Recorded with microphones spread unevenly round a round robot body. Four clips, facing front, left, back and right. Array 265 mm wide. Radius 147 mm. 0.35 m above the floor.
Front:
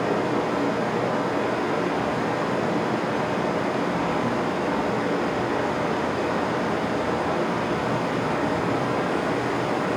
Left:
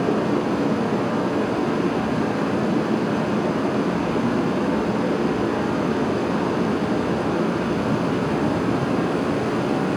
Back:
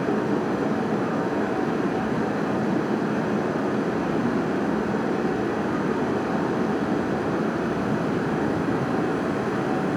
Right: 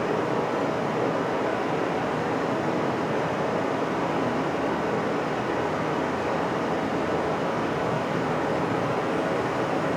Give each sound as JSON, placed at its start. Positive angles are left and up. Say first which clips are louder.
{"t": 0.0, "sound": "running water", "louder": "left 4 dB, even", "azimuth_deg": 120, "distance_m": 1.7}